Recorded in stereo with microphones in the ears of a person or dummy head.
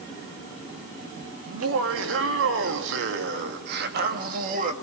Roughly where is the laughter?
Right.